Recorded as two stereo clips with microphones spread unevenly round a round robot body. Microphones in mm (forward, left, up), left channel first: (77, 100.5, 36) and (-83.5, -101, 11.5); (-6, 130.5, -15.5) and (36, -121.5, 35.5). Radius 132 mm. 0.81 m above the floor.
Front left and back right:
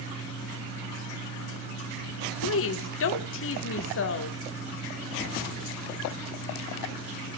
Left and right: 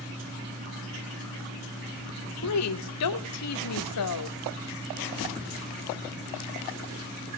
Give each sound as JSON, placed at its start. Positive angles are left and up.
{"t": 2.4, "sound": "a woman speaking", "azimuth_deg": 95, "distance_m": 2.0}